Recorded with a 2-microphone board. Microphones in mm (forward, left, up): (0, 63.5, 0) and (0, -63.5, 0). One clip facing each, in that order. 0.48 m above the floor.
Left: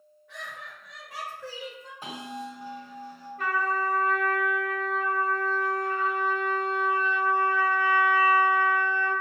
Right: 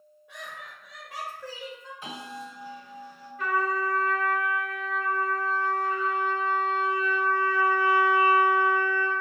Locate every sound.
0.3 s laughter: 15° right (ahead or behind), 1.3 m; by 1.9 s 20° left (ahead or behind), 1.3 m
2.0 s a bell: 35° left (ahead or behind), 1.4 m
3.4 s a trumpet: 55° left (ahead or behind), 0.9 m